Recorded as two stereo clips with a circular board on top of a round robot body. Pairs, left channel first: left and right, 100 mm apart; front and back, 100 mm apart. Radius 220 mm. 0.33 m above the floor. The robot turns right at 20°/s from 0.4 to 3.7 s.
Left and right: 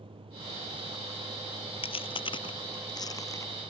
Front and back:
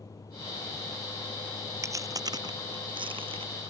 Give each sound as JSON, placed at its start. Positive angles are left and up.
{"t": 0.0, "sound": "a vehicle", "azimuth_deg": -60}
{"t": 1.8, "sound": "chewing", "azimuth_deg": 120}